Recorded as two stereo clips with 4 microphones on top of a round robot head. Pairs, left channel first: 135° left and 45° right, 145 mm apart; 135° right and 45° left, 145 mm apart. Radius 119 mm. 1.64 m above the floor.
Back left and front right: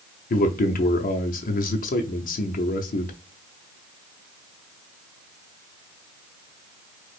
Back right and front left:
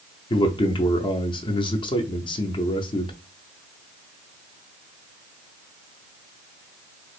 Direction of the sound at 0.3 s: 165° left.